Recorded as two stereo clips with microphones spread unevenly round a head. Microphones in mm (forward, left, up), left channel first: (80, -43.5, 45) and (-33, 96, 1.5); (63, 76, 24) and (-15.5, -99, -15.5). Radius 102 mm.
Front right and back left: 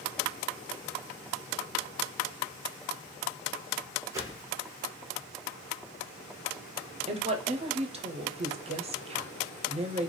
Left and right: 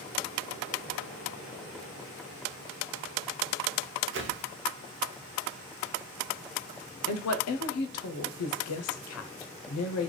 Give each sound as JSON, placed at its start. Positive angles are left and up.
{"t": 4.1, "sound": "a whoosh", "azimuth_deg": -155, "distance_m": 0.5}
{"t": 7.1, "sound": "a woman speaking", "azimuth_deg": 80, "distance_m": 0.6}